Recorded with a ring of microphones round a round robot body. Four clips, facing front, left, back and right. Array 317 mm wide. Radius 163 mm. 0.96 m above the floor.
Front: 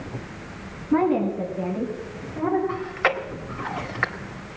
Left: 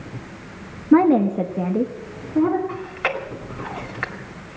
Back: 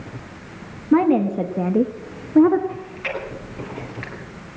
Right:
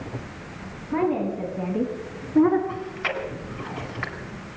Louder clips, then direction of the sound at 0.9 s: Left 9 dB, back 4 dB; 115° left.